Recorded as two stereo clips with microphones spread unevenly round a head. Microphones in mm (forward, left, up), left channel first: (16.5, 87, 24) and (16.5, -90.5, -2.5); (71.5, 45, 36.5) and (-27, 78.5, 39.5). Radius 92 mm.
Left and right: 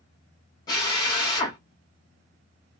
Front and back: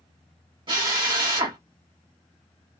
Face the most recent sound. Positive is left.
turn(degrees=140)